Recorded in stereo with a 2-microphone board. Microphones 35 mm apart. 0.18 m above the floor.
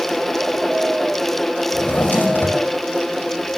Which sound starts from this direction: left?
A drawer, at 1.7 s.